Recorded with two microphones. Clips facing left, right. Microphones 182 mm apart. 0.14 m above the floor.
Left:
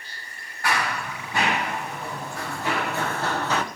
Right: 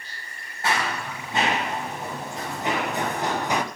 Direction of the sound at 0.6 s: 20° right (ahead or behind).